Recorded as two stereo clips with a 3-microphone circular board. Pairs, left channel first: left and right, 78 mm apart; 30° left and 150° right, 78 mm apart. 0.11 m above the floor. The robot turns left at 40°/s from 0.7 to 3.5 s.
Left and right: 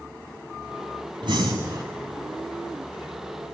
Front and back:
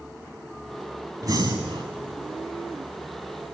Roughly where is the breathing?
Right.